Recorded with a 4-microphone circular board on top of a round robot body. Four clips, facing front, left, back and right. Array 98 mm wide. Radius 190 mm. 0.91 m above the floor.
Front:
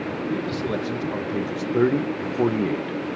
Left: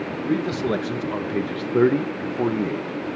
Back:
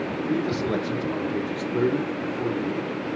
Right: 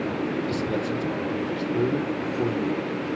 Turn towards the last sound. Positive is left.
turn(degrees=20)